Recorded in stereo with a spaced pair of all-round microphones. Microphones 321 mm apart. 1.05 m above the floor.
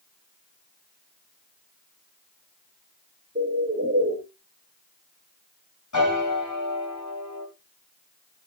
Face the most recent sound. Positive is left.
turn(degrees=65)  # may be behind; listen again after turning